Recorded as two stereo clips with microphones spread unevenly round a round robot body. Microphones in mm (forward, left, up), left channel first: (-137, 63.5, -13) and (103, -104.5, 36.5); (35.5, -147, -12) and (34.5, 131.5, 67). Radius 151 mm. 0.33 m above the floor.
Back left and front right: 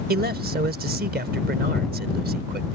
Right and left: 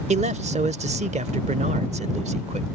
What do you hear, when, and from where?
0.1 s a man speaking: 15° left